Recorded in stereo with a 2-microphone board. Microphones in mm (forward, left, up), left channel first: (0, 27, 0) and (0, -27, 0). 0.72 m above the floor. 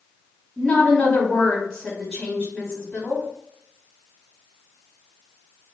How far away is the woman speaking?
About 1.3 m.